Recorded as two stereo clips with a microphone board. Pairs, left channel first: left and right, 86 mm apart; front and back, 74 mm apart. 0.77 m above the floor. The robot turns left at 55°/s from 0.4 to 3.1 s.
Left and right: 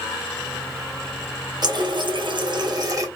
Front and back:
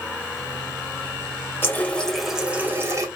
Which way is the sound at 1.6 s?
60° right.